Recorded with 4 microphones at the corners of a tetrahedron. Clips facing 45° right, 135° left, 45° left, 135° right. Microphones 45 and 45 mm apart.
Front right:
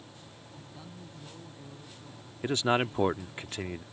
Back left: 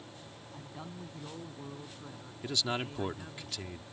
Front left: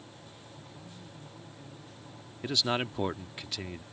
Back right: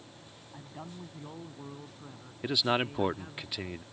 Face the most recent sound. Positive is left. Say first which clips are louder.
# front right 8 dB, back right 2 dB
turn(degrees=-65)